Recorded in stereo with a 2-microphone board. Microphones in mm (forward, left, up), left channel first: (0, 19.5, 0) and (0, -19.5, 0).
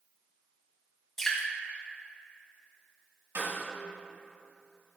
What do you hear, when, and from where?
1.2 s dripping: 15° left (ahead or behind), 1.8 m
3.4 s a snare drum: 80° right, 1.8 m